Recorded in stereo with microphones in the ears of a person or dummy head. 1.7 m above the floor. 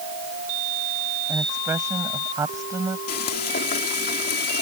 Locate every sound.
1.3 s a woman speaking: 15° right (ahead or behind)
3.1 s frying: 45° left (ahead or behind)